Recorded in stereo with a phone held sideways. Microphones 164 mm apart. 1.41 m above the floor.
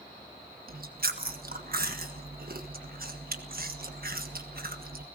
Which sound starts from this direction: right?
Chewing, at 0.7 s.